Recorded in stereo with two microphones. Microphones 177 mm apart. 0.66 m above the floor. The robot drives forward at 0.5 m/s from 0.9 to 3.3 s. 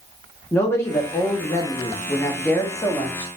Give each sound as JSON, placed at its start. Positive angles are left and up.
{"t": 0.5, "sound": "a man speaking", "side_deg": 15, "distance_m": 0.7}